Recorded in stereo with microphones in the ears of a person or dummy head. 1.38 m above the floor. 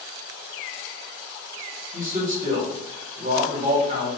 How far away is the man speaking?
About 1.5 m.